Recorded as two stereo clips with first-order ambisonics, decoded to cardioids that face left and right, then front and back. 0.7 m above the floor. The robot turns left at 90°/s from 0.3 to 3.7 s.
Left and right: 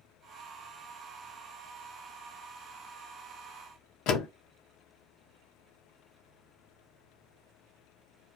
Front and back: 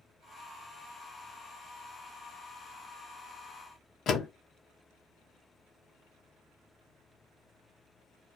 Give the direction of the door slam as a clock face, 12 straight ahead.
10 o'clock.